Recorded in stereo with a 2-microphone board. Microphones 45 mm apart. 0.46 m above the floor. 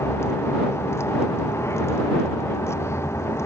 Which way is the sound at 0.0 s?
70° left (ahead or behind).